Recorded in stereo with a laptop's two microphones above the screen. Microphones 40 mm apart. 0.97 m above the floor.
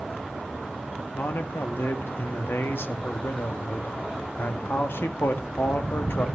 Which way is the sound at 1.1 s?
70° left (ahead or behind).